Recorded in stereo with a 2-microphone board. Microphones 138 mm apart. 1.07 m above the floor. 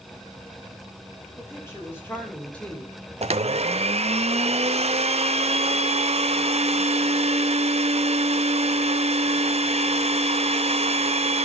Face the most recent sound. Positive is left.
turn(degrees=-55)  # may be behind; listen again after turning